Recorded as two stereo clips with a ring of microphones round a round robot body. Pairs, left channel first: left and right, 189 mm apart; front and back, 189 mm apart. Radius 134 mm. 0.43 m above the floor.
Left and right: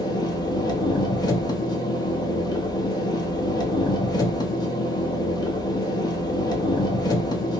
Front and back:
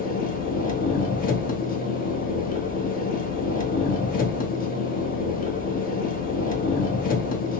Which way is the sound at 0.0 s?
25° left.